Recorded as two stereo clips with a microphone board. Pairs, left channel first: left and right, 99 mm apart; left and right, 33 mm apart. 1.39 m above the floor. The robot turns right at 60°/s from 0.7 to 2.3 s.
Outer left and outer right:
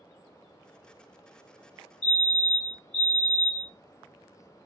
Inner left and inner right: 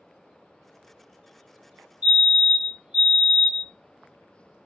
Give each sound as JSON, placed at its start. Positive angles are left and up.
{"t": 2.0, "sound": "a fire alarm", "side_deg": -45, "distance_m": 1.0}